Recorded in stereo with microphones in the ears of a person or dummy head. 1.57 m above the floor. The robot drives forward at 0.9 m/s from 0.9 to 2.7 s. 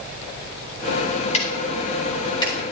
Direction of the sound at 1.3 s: 35° left (ahead or behind).